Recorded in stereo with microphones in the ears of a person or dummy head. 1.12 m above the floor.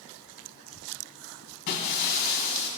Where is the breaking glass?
60° left (ahead or behind), 3 m.